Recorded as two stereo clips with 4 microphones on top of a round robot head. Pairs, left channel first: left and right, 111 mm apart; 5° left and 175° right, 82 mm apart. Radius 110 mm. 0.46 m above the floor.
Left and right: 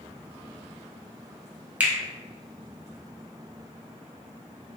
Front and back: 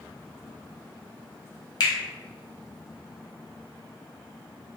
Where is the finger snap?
15° right, 0.9 m.